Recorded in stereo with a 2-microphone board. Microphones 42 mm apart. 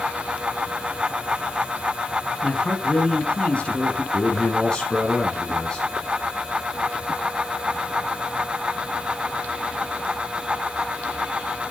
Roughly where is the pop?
No pop in this recording.